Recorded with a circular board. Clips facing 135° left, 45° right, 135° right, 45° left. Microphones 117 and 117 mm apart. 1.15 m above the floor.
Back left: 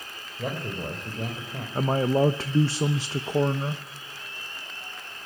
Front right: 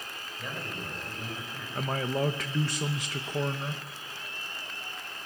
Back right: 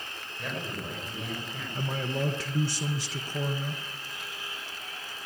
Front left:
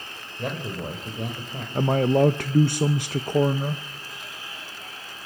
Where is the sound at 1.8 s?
75° left, 0.8 m.